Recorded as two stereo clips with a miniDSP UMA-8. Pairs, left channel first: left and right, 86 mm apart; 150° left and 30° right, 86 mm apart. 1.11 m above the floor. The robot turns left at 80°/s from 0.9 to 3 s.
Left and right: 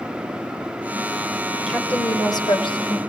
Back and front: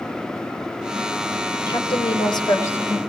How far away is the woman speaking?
About 5 m.